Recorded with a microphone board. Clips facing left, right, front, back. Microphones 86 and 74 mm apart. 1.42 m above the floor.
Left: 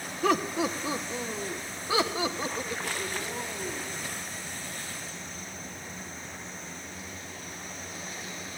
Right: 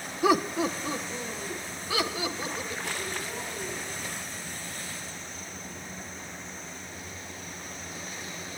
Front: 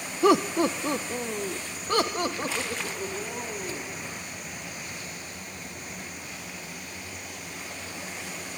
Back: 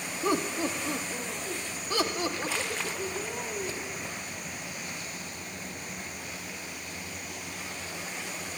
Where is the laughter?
10° right, 0.8 m; by 4.0 s 40° left, 3.5 m.